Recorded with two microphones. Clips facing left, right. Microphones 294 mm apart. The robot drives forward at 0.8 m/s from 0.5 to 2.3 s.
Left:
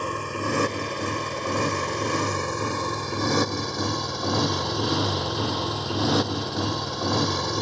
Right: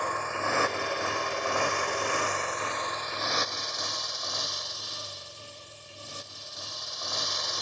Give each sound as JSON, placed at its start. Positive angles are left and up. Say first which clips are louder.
{"t": 0.0, "sound": "a motorcycle", "louder": "left 5 dB", "side_deg": 35}